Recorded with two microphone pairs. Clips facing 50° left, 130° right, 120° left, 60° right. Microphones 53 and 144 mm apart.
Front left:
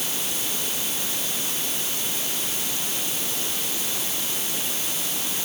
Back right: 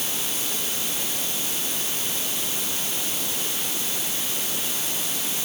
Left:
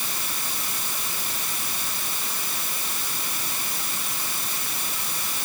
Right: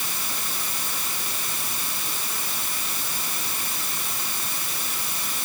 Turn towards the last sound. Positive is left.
No sound to turn to.